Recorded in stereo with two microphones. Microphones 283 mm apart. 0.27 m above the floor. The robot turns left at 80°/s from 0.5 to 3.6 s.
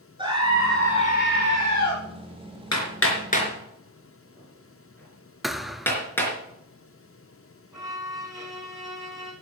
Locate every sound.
0.2 s a scream: 160° right, 3 m; by 1.9 s 80° left, 3 m
2.7 s hammering: 70° left (ahead or behind), 4 m; by 6.3 s 5° left (ahead or behind), 4 m
5.4 s a thud: centre (ahead or behind), 0.7 m
7.7 s a violin: 10° right (ahead or behind), 4 m